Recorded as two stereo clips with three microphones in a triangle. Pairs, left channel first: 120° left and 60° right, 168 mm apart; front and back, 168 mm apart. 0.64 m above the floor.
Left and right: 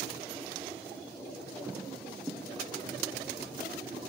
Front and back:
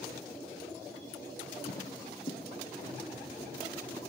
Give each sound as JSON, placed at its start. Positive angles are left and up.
{"t": 1.7, "sound": "footsteps", "azimuth_deg": 15, "distance_m": 1.1}